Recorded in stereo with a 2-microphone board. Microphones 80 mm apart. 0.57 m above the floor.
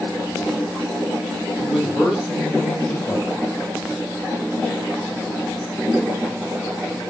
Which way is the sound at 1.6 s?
5° right (ahead or behind).